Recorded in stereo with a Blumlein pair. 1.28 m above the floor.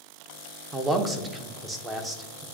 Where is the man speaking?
10° right, 0.7 m.